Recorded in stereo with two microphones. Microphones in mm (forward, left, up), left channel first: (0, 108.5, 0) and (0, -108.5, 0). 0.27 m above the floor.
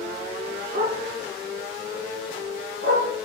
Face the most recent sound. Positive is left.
turn(degrees=-70)  # may be behind; listen again after turning